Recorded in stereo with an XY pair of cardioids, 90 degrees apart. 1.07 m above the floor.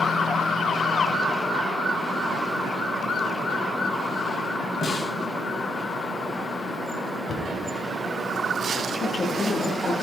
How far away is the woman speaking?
About 2 m.